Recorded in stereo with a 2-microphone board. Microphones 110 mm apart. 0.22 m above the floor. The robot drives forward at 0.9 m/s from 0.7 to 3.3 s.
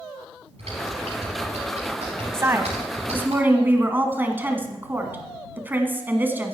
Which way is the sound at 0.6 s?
75° right (ahead or behind).